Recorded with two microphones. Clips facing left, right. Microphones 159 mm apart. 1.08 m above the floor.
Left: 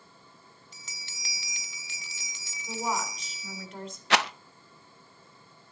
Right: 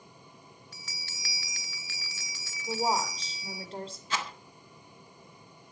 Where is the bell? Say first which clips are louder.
Right 2 dB; 20° left (ahead or behind), 1.4 m.